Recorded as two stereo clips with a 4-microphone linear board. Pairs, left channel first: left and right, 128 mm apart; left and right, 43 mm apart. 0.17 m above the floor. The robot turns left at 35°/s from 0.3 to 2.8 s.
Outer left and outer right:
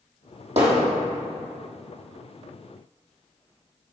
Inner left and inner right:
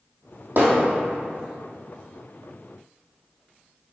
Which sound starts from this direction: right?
Hammering, at 0.6 s.